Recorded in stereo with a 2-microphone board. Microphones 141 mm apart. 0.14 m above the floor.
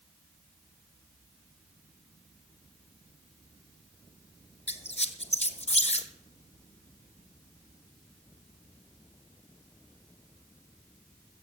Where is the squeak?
55° left (ahead or behind), 1.0 m.